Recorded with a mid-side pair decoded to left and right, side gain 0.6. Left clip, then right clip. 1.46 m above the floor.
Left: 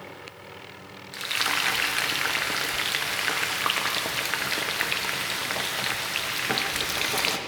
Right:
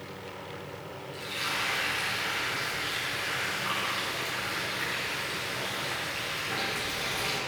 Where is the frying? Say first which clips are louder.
Left 6 dB; 65° left, 0.7 m.